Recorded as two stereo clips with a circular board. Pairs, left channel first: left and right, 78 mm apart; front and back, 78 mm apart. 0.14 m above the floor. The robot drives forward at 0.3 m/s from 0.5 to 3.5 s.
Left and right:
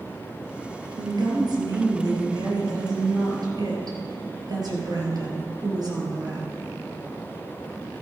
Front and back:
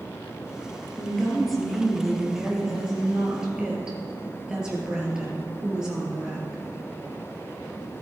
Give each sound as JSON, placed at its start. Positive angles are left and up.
{"t": 1.0, "sound": "a woman speaking", "azimuth_deg": -85, "distance_m": 3.0}